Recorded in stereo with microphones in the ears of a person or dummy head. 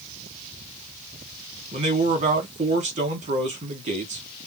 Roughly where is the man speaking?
Right.